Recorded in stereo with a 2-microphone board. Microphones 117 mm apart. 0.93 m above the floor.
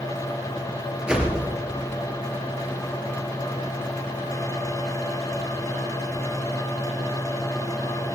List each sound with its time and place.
1.1 s a whoosh: 10° right (ahead or behind), 4 m